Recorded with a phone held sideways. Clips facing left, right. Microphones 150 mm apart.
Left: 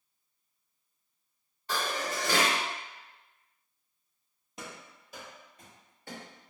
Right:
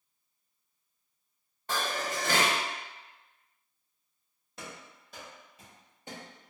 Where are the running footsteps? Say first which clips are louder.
Even; 15° left (ahead or behind), 1.5 m; by 6.5 s 35° right (ahead or behind), 1.3 m.